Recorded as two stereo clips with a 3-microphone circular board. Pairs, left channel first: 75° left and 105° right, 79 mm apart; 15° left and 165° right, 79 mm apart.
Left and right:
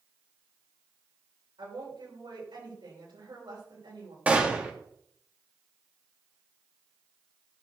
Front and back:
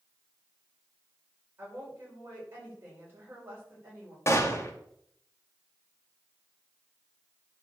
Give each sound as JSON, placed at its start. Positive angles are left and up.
{"t": 1.6, "sound": "a woman speaking", "azimuth_deg": -105, "distance_m": 5.5}
{"t": 4.3, "sound": "a gunshot", "azimuth_deg": -35, "distance_m": 1.7}